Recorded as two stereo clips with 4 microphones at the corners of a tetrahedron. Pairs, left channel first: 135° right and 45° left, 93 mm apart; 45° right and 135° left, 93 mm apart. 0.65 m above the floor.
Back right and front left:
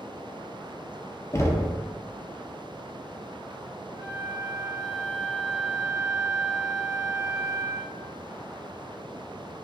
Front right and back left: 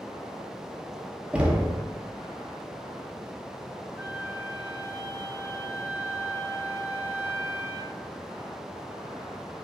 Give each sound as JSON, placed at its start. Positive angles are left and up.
{"t": 1.3, "sound": "knocking", "azimuth_deg": -160, "distance_m": 0.6}
{"t": 4.0, "sound": "a flute", "azimuth_deg": 65, "distance_m": 1.1}